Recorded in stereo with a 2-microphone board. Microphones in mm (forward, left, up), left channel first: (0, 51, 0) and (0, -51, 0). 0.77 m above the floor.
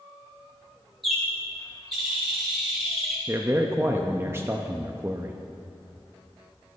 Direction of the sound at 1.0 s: Centre (ahead or behind).